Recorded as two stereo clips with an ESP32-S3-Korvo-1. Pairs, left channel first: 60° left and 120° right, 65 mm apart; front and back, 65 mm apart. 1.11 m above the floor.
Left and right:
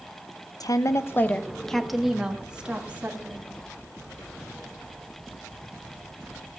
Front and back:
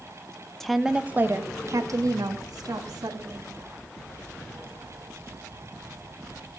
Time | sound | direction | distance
0.6 | a woman speaking | 85° left | 0.8 m